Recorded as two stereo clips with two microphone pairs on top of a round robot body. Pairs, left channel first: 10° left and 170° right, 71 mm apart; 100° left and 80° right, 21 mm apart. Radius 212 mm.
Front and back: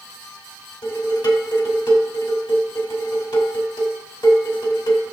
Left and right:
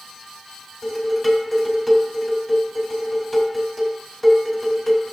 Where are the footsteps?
I don't hear footsteps.